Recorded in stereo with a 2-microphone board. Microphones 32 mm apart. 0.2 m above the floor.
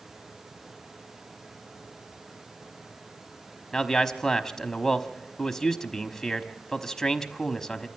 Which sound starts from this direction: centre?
A man speaking, at 3.7 s.